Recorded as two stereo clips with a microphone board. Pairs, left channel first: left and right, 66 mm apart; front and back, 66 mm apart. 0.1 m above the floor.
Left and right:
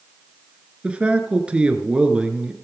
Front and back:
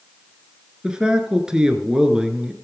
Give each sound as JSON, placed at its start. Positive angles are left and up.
{"t": 0.8, "sound": "a man speaking", "azimuth_deg": -125, "distance_m": 1.1}